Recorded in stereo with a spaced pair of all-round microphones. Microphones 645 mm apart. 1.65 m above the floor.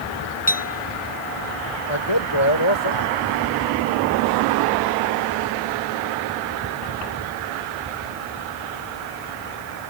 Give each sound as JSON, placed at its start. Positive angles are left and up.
{"t": 0.5, "sound": "a clink", "side_deg": 10}
{"t": 1.9, "sound": "a man speaking", "side_deg": 40}